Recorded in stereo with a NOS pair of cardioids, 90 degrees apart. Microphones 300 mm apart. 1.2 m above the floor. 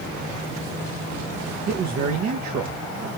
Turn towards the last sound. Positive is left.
turn(degrees=-65)